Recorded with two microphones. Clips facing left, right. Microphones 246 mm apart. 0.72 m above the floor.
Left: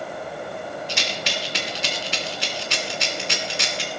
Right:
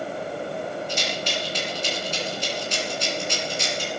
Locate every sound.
0.9 s a rattle: 80° left, 2.5 m